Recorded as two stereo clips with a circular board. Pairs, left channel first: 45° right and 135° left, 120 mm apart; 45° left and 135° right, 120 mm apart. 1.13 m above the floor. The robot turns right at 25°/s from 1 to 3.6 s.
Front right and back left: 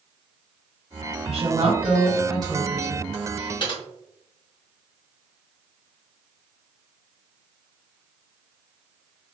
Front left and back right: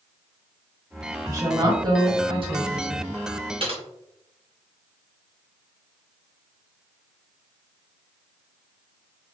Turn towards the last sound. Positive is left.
turn(degrees=-95)